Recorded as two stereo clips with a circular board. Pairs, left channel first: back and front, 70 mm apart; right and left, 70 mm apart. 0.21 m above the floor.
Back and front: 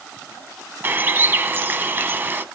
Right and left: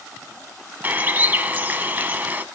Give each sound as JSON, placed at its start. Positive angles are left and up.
{"t": 0.8, "sound": "a bird", "azimuth_deg": 40, "distance_m": 0.8}